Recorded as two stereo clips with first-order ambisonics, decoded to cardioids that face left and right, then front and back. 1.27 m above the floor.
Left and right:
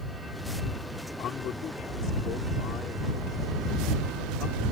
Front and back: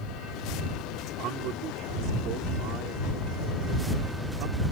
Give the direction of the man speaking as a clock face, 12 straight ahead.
7 o'clock.